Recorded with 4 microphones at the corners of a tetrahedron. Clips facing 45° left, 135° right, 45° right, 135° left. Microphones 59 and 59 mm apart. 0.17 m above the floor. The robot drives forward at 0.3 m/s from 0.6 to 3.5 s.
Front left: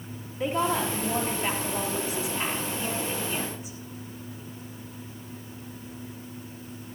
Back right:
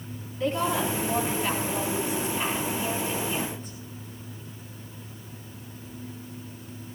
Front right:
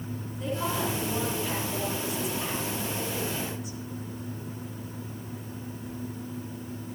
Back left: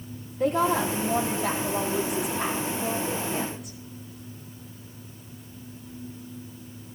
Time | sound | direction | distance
0.4 | a woman speaking | 115° left | 3.5 m